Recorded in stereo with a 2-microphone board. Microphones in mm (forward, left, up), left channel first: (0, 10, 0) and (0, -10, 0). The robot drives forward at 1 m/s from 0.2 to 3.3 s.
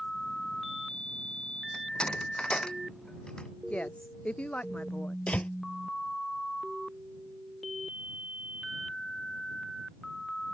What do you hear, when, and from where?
1.7 s a door slam: 45° left (ahead or behind); by 3.5 s 40° left (ahead or behind)
3.7 s a woman speaking: 70° left (ahead or behind)
5.3 s a door slam: 70° left (ahead or behind)